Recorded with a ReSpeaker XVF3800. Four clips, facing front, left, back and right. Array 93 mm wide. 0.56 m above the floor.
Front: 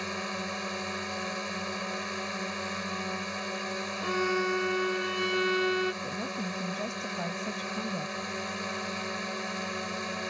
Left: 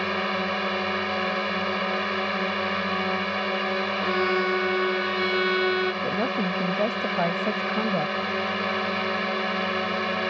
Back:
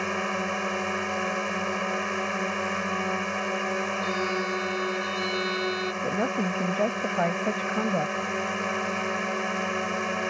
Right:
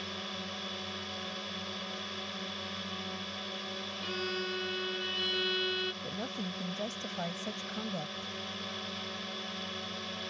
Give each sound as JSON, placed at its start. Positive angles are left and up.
{"t": 0.0, "sound": "a drone", "azimuth_deg": 120}
{"t": 4.0, "sound": "a violin", "azimuth_deg": 75}
{"t": 6.0, "sound": "a woman speaking", "azimuth_deg": 135}